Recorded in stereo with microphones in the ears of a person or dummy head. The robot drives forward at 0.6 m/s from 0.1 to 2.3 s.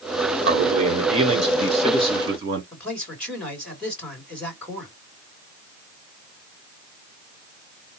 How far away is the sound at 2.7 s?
About 2 m.